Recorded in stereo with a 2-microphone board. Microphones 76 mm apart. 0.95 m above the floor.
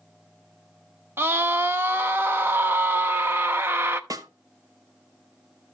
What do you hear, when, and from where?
1.2 s a scream: 30° right (ahead or behind), 0.9 m
4.1 s a snare drum: 50° right (ahead or behind), 0.8 m